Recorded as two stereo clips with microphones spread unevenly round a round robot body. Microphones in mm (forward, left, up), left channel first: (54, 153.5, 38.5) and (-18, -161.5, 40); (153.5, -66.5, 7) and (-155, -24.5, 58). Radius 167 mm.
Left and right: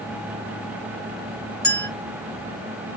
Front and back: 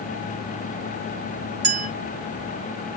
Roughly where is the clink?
Behind.